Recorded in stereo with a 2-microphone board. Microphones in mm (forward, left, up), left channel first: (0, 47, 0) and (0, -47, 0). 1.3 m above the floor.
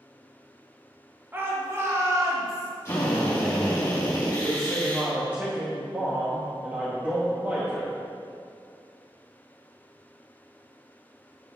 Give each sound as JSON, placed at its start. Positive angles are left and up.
{"t": 1.3, "sound": "a shout", "side_deg": -25, "distance_m": 1.7}
{"t": 2.9, "sound": "a drill", "side_deg": 30, "distance_m": 2.0}
{"t": 4.4, "sound": "a man speaking", "side_deg": -20, "distance_m": 1.5}